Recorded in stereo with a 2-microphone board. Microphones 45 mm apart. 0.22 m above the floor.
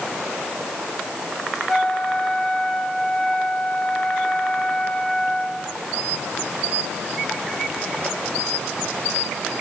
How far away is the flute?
About 2.5 m.